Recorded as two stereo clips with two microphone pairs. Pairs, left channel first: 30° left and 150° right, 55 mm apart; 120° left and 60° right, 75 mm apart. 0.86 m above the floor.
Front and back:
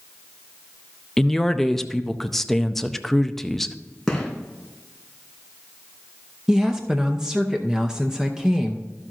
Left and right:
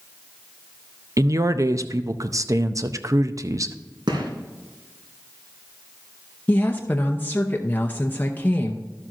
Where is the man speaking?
55° right, 0.6 m.